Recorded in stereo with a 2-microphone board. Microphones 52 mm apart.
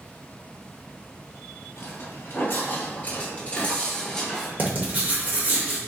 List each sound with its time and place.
1.8 s footsteps: 50° left (ahead or behind), 1.8 m; by 4.5 s 5° left (ahead or behind), 1.3 m
4.6 s writing: 35° right (ahead or behind), 1.1 m